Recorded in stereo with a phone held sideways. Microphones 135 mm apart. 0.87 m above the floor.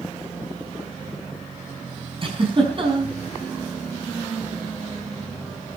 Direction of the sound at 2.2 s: 40° right (ahead or behind).